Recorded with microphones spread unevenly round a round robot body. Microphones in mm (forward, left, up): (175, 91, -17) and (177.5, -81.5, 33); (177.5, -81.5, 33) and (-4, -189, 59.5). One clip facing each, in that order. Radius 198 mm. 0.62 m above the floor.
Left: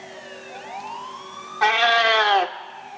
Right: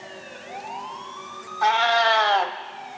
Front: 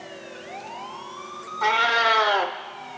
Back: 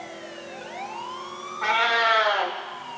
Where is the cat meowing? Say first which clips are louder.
Left 1 dB, front 1 dB; 80° left, 0.6 m.